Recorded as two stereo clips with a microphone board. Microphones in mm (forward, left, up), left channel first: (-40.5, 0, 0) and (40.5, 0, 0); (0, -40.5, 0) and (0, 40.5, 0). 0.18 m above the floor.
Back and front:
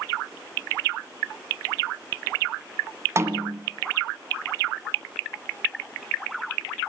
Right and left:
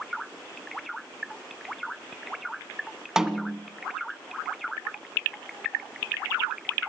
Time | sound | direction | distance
3.2 | a snare drum | 10° left | 1.4 m